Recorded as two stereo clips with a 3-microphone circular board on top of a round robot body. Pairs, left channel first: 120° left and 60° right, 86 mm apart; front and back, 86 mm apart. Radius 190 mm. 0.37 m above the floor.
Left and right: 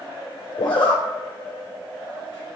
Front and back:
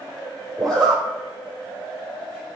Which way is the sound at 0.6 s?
85° left.